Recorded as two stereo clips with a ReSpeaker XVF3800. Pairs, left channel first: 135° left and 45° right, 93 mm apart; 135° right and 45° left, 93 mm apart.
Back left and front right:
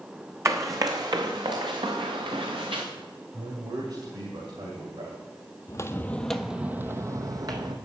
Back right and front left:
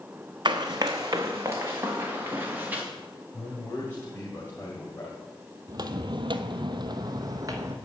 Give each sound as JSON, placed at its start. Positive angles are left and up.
{"t": 0.5, "sound": "running footsteps", "azimuth_deg": 10, "distance_m": 1.3}
{"t": 3.3, "sound": "a man speaking", "azimuth_deg": -75, "distance_m": 2.0}
{"t": 5.7, "sound": "footsteps", "azimuth_deg": 85, "distance_m": 0.8}